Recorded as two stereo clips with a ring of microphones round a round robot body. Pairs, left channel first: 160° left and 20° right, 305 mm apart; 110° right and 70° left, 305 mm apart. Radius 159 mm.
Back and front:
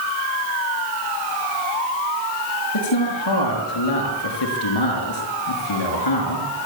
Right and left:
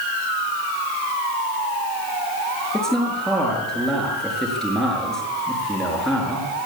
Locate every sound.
2.7 s a man speaking: 160° left, 6.5 m